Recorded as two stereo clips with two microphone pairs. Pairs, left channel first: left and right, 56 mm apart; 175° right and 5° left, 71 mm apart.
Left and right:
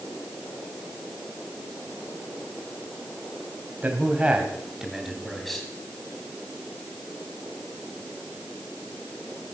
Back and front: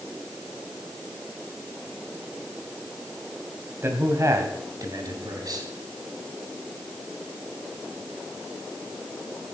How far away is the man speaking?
About 2.5 m.